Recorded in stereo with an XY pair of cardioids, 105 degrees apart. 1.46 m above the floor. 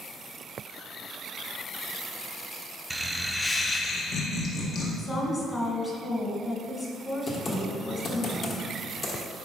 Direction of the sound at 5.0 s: 30° left.